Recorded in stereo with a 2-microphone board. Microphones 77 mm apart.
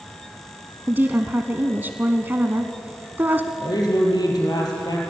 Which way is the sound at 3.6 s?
60° left (ahead or behind).